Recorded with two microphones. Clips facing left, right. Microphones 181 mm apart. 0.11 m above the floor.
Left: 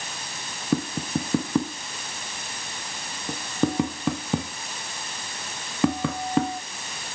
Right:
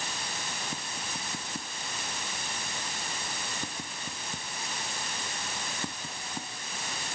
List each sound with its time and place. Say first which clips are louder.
0.7 s tapping: left 15 dB; 90° left